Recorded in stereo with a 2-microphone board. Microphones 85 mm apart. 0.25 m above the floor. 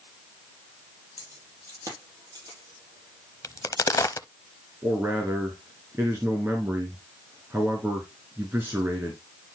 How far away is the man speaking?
About 2.5 m.